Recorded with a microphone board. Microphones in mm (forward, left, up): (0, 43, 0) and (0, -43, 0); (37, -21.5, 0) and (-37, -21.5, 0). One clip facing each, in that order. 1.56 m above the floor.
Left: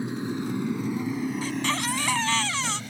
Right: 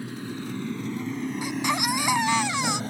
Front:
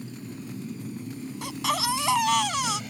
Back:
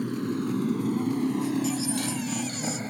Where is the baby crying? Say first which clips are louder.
Right 1 dB, back 1 dB; 15° right.